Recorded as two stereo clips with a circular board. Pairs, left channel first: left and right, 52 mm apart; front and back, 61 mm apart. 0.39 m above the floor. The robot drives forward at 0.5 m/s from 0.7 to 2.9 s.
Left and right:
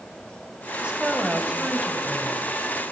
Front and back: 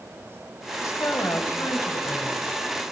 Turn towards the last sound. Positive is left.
turn(degrees=-35)